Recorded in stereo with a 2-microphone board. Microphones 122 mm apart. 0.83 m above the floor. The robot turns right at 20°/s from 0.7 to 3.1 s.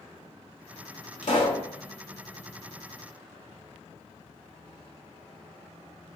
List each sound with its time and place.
1.2 s a pop: 70° left (ahead or behind), 1.1 m